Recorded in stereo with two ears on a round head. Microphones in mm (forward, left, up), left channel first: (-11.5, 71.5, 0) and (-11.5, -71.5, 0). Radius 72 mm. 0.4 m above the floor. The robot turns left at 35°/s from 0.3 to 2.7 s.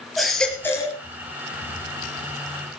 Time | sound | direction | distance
0.2 | a baby crying | centre (ahead or behind) | 3.5 m